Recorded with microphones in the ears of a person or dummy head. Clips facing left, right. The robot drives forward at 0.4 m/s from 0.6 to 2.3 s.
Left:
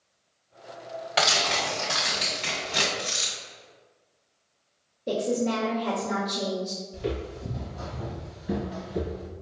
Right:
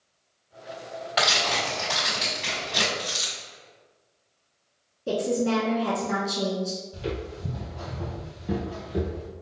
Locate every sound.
1.2 s tearing paper: 15° left (ahead or behind), 1.6 m; by 2.9 s 10° left (ahead or behind), 1.9 m
3.0 s a dropped coin: 25° left (ahead or behind), 1.8 m
5.1 s a woman speaking: 55° right (ahead or behind), 1.6 m
6.9 s footsteps: 15° right (ahead or behind), 1.9 m